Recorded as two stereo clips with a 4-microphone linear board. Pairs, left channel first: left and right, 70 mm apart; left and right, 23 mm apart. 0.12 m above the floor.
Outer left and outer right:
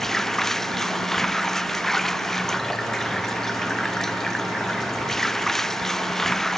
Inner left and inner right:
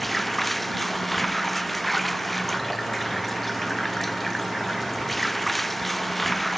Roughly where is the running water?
Centre.